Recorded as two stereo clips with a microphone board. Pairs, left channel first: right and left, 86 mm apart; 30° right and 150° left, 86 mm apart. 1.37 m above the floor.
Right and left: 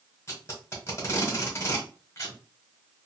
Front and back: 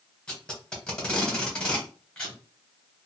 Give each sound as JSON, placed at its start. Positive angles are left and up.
{"t": 0.3, "sound": "tape being pulled", "azimuth_deg": -100, "distance_m": 1.3}